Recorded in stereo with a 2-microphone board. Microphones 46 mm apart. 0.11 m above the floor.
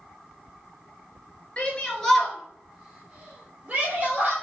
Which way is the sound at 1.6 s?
25° left (ahead or behind).